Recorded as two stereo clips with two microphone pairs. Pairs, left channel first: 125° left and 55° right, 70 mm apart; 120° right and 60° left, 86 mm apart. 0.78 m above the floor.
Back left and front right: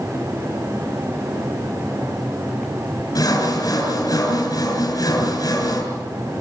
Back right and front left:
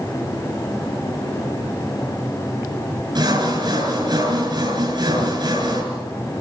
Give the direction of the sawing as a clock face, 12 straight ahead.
9 o'clock.